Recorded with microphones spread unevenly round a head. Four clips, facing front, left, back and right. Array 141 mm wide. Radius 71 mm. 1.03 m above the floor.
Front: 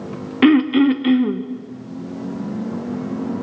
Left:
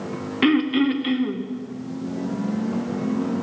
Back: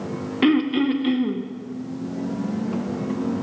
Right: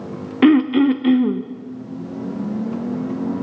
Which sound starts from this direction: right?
Throat clearing, at 0.4 s.